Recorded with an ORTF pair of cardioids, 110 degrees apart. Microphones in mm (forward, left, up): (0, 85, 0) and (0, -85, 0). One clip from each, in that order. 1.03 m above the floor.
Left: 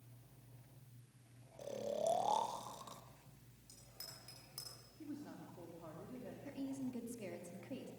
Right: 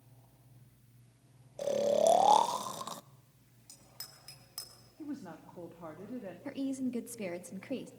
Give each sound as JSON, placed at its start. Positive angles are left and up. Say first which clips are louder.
{"t": 1.6, "sound": "snoring", "louder": "right 13 dB", "azimuth_deg": -55, "distance_m": 0.5}
{"t": 3.7, "sound": "a bicycle bell", "louder": "right 4 dB", "azimuth_deg": -40, "distance_m": 6.5}
{"t": 5.0, "sound": "a woman speaking", "louder": "right 7 dB", "azimuth_deg": -55, "distance_m": 2.5}
{"t": 6.5, "sound": "a woman speaking", "louder": "right 9 dB", "azimuth_deg": -60, "distance_m": 1.7}